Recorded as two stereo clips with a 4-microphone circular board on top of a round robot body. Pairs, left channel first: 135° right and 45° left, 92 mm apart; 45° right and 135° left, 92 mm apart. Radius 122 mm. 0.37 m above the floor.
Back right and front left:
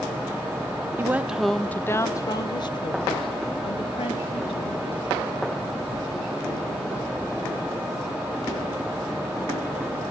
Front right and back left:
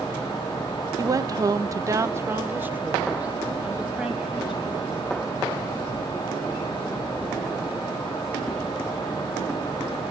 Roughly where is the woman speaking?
Left.